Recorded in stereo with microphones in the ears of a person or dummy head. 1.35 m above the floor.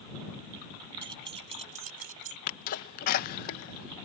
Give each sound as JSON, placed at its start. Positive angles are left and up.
{"t": 1.0, "sound": "keys jangling", "side_deg": -25}
{"t": 2.5, "sound": "a sneeze", "side_deg": 50}